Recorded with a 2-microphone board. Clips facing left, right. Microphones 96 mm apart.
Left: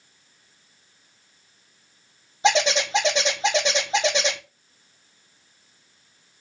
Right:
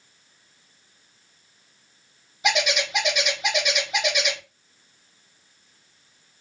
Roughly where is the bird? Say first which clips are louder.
Left 4 dB; left.